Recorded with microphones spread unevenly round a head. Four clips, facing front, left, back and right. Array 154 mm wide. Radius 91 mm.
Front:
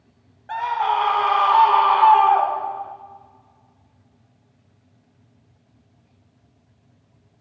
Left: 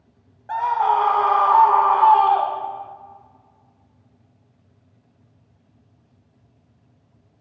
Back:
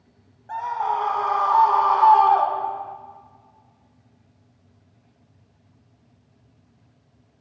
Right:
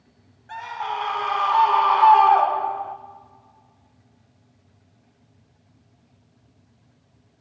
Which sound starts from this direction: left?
A scream, at 0.5 s.